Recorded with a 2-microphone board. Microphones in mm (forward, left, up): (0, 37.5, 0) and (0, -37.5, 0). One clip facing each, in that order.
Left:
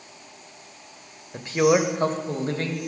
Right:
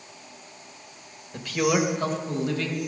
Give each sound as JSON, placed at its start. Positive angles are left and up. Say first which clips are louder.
{"t": 1.3, "sound": "a man speaking", "louder": "left 4 dB", "side_deg": 25, "distance_m": 1.0}